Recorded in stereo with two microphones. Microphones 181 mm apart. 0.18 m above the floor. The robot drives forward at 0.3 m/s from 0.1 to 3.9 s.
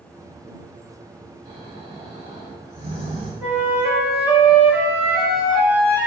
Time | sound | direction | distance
1.4 | snoring | 30° right (ahead or behind) | 1.8 m
3.4 | a flute | 10° right (ahead or behind) | 0.6 m